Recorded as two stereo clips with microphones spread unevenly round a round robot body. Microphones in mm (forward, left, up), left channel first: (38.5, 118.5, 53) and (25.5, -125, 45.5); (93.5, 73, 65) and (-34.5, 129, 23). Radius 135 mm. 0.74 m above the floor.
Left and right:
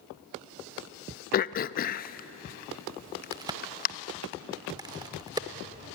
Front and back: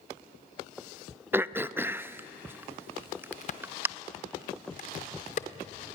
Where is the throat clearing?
120° left, 0.5 m.